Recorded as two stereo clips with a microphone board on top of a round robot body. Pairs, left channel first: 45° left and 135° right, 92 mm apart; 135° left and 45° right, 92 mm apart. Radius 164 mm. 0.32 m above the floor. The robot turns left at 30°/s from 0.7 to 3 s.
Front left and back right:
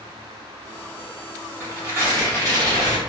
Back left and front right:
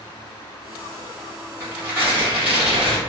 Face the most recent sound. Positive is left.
turn(degrees=-130)